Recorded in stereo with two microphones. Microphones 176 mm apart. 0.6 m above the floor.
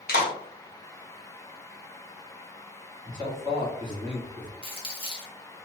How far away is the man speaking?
About 1.3 m.